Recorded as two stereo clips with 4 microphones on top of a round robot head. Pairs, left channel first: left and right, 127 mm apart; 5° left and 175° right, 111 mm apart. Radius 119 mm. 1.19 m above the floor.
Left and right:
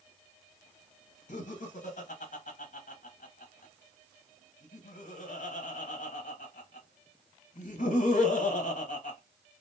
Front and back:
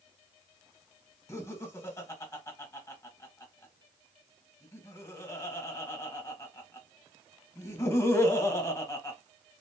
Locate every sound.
1.3 s laughter: 70° left, 1.4 m